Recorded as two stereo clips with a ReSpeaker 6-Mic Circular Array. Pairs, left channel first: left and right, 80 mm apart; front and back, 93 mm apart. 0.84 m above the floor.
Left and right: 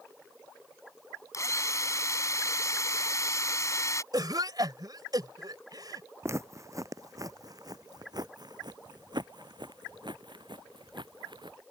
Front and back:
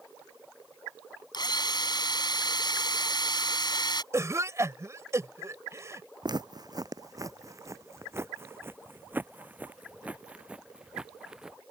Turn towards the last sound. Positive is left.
turn(degrees=-95)